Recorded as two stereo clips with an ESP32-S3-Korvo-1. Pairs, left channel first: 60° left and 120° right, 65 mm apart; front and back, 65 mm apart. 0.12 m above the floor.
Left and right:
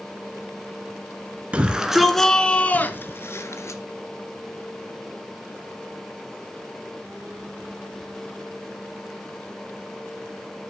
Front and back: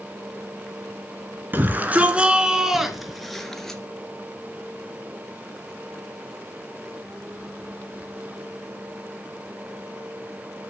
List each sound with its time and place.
1.5 s a shout: 170° right, 1.8 m; by 3.8 s 80° left, 2.5 m